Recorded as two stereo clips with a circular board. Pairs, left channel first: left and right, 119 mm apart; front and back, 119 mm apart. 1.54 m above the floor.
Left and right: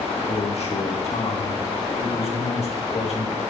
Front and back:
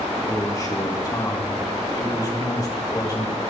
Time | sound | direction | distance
0.3 | a man speaking | 60° left | 2.5 m